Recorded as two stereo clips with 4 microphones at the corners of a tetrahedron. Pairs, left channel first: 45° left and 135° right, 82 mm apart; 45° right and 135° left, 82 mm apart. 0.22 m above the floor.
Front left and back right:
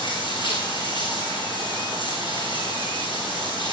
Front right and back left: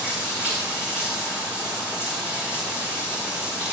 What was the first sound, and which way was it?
Running water, 65° left.